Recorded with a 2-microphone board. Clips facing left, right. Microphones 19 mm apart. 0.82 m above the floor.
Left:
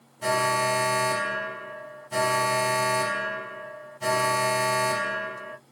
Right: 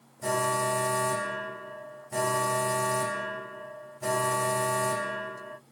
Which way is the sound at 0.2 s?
70° left (ahead or behind).